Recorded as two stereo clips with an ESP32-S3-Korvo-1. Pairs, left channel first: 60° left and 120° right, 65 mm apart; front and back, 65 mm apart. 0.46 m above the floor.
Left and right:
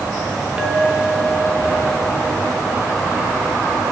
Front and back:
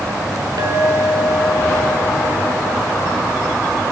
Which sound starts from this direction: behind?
A clink, at 0.6 s.